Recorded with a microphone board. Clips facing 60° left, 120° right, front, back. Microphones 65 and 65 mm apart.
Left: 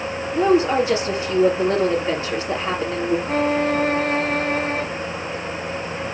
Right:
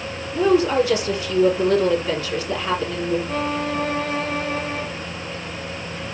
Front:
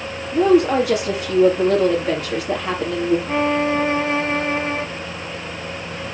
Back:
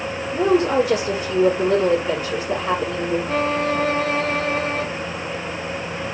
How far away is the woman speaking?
About 4 m.